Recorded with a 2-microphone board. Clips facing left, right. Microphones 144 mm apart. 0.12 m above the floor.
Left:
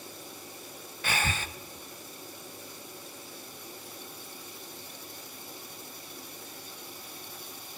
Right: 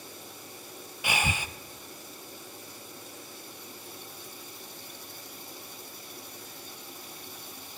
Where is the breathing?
15° right (ahead or behind), 0.7 m.